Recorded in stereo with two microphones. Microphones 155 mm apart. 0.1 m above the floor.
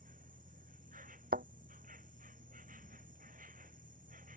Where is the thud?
75° right (ahead or behind).